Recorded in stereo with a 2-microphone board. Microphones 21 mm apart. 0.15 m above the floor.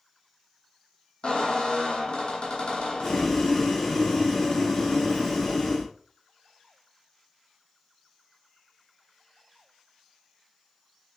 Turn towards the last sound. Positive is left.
turn(degrees=25)  # may be behind; listen again after turning